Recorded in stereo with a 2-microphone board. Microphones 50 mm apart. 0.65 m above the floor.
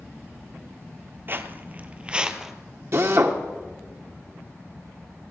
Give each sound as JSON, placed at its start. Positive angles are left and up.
{"t": 1.3, "sound": "footsteps", "side_deg": -45, "distance_m": 0.9}
{"t": 2.9, "sound": "a drill", "side_deg": -50, "distance_m": 1.3}